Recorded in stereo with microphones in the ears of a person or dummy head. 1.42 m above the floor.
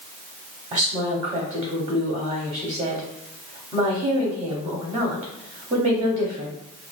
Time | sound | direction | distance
0.7 | a woman speaking | 20° right (ahead or behind) | 0.7 m